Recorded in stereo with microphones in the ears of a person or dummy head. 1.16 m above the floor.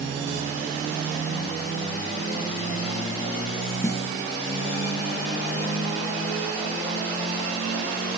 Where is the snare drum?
20° left (ahead or behind), 0.6 m.